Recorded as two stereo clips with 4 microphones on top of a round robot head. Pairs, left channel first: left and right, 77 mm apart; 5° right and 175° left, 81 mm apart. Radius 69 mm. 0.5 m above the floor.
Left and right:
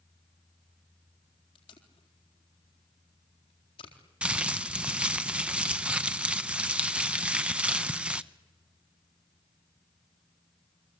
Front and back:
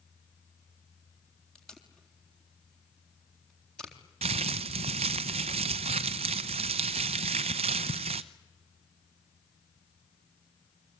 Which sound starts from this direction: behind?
Crumpling, at 4.2 s.